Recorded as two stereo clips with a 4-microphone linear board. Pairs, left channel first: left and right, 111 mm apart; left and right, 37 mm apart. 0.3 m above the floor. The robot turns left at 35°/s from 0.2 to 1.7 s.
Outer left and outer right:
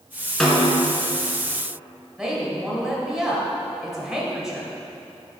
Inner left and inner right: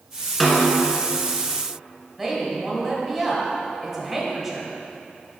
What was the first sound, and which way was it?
A snare drum, centre (ahead or behind).